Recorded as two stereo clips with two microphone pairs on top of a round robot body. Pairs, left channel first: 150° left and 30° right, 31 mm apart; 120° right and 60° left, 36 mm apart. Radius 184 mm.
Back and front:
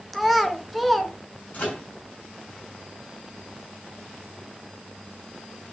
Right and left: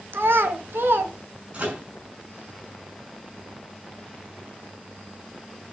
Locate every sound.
0.1 s a child speaking: 60° left, 1.3 m
1.5 s a microwave: 115° left, 5.5 m